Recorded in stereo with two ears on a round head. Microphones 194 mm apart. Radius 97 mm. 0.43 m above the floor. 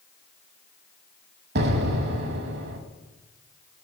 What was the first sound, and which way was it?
An explosion, 50° right (ahead or behind).